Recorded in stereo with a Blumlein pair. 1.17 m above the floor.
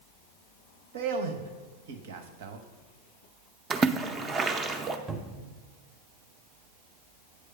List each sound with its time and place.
0.9 s a man speaking: 55° right, 0.8 m
3.7 s a splash: 20° right, 0.5 m
5.1 s a cupboard door: 10° right, 0.7 m